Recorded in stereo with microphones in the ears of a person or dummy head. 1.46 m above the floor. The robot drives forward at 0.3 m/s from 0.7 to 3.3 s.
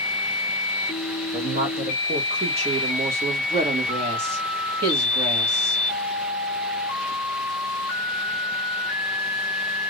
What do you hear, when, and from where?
1.3 s a woman speaking: 45° right (ahead or behind), 1.1 m; by 5.8 s 30° right (ahead or behind), 1.6 m